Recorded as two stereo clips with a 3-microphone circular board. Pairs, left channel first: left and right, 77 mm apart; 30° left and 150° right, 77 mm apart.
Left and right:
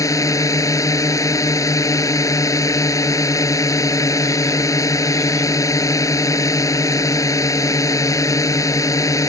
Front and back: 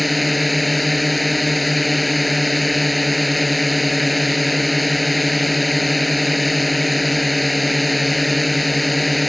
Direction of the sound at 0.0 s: 120° left.